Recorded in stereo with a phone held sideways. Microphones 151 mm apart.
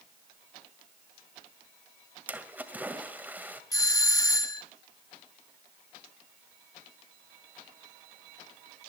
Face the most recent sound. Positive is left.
turn(degrees=20)  # may be behind; listen again after turning